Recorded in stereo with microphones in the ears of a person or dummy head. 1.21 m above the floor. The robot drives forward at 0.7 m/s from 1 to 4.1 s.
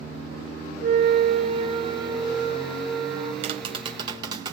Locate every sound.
0.8 s a flute: 40° right (ahead or behind), 0.6 m; by 3.3 s 10° right (ahead or behind), 1.9 m
3.4 s tapping: 30° right (ahead or behind), 0.7 m; by 4.5 s 20° right (ahead or behind), 1.0 m